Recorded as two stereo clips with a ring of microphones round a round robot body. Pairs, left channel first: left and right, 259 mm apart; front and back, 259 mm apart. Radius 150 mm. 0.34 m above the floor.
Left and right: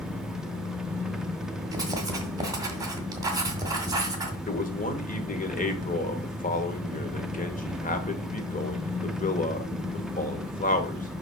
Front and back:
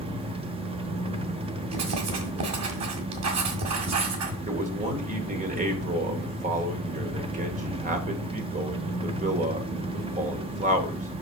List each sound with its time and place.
0.0 s an engine running: 175° right, 0.8 m
1.7 s writing: 165° right, 1.9 m
4.5 s a man speaking: 135° left, 1.4 m